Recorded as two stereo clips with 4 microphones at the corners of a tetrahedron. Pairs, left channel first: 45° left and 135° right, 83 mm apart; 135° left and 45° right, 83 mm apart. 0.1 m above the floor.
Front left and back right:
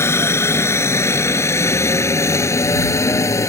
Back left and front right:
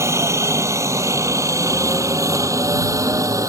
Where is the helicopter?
5° right.